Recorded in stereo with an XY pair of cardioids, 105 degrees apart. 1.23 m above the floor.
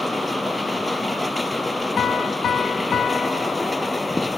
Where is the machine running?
15° left.